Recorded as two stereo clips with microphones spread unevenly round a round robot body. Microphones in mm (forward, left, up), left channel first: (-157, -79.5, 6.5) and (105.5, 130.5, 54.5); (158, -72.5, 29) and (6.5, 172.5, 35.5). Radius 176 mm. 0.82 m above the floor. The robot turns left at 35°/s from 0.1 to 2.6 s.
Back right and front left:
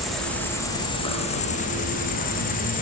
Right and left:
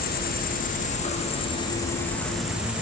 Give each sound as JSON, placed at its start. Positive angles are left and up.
{"t": 0.0, "sound": "an insect", "azimuth_deg": -65, "distance_m": 0.9}